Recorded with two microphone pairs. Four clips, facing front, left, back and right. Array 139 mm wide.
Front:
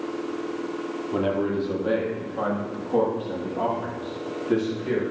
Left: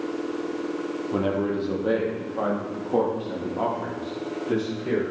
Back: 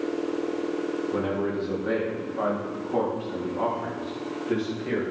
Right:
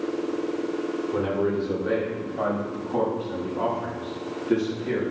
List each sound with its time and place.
1.1 s a man speaking: 50° left, 4 m; by 5.0 s 75° left, 8 m